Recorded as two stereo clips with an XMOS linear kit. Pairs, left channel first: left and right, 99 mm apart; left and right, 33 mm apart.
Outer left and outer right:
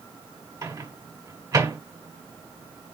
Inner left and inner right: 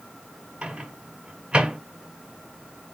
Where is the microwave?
35° right (ahead or behind), 1.6 m.